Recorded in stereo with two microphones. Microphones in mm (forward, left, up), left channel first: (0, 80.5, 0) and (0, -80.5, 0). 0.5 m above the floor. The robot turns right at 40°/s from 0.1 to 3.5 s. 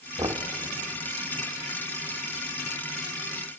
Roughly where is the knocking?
Right.